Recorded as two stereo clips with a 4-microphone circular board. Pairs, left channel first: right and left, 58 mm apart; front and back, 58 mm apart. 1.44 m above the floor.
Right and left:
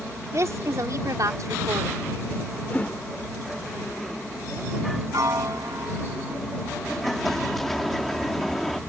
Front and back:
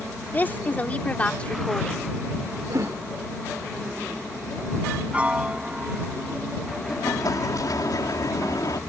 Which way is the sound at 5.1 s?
110° left.